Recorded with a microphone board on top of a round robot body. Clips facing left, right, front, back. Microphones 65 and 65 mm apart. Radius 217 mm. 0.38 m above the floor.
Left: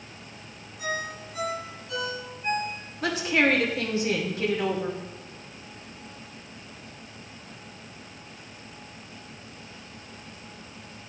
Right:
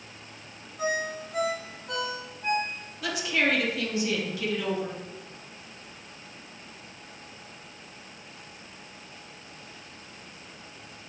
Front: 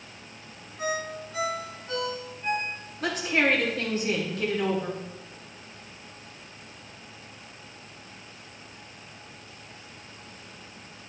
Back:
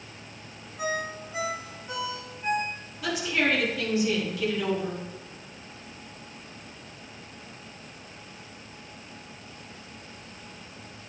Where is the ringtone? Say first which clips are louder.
Right 3 dB, even; 100° right, 3.5 m.